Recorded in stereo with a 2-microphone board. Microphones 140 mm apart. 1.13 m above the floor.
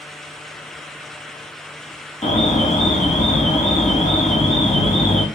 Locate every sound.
2.2 s an alarm: 50° left (ahead or behind), 4.5 m